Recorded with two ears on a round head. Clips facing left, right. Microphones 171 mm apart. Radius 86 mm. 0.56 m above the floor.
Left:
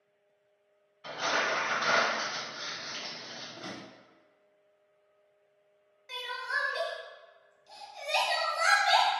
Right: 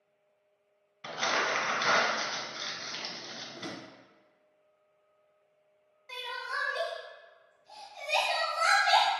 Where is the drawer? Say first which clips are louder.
Right 2 dB; 35° right (ahead or behind), 0.5 m.